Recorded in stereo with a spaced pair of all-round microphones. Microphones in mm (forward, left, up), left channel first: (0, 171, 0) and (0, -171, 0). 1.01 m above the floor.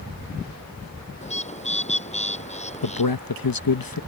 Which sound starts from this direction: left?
A man speaking, at 2.8 s.